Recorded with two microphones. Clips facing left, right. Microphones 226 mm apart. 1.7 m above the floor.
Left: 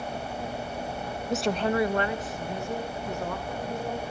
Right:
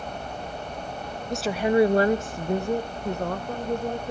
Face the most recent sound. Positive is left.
turn(degrees=-55)  # may be behind; listen again after turning